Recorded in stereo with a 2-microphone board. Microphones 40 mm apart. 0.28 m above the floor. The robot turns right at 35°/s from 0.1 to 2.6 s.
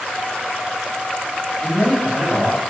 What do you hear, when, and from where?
1.6 s a man speaking: 155° right, 1.8 m; by 2.6 s 120° right, 1.8 m